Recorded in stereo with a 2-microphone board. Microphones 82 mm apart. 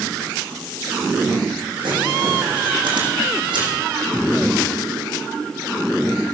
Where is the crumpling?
85° right, 8.5 m.